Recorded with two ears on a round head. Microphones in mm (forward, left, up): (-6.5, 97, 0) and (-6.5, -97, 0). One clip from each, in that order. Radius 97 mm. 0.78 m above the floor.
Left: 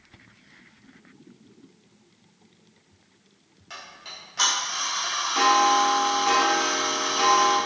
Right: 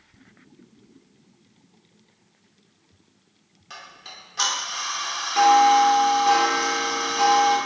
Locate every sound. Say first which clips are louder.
3.7 s ticking: left 1 dB; 10° right (ahead or behind), 1.0 m